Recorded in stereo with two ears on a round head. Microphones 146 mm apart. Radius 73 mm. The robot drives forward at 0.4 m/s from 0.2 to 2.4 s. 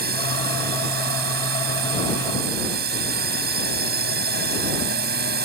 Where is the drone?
65° right (ahead or behind).